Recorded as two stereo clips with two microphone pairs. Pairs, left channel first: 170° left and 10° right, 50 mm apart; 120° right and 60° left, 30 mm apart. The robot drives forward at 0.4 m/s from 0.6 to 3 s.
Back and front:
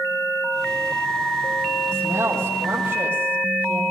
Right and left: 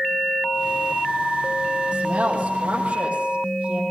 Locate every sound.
1.9 s a woman speaking: 40° left, 9 m